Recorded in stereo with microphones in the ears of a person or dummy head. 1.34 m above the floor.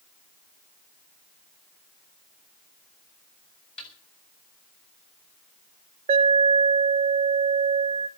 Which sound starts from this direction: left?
A snare drum, at 3.8 s.